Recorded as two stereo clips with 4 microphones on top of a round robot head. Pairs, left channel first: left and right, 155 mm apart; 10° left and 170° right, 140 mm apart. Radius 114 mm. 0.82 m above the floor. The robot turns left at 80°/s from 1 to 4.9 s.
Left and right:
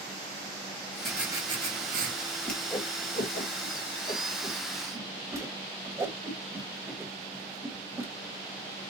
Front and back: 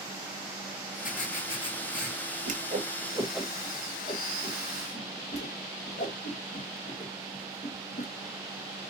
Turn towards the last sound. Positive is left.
turn(degrees=-20)